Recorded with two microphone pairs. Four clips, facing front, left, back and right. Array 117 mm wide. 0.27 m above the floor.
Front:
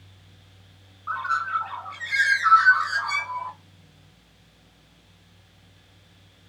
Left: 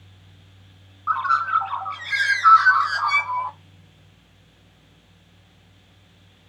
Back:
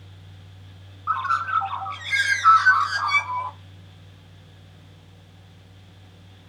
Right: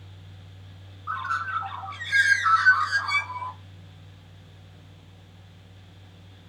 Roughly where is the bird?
Behind left.